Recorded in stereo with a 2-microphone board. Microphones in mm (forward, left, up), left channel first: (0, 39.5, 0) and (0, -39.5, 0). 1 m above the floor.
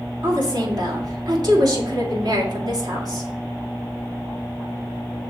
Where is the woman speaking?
55° right (ahead or behind), 1.8 m.